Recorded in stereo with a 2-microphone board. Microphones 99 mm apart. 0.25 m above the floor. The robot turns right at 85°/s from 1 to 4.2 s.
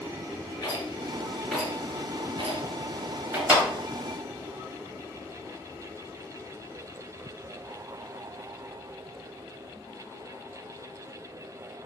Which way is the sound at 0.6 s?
45° left (ahead or behind).